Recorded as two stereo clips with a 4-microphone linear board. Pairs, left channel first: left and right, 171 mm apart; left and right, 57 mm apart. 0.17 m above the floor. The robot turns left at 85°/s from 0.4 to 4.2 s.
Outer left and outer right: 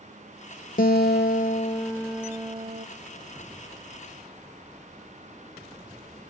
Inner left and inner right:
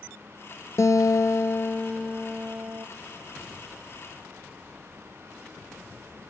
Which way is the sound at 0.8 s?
115° left.